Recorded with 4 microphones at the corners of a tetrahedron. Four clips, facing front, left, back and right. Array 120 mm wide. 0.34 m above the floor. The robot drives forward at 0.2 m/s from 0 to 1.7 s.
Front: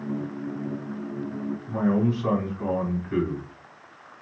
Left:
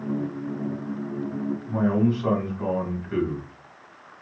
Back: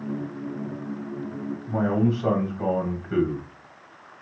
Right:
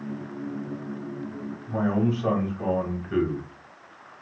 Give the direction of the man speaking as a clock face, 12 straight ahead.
6 o'clock.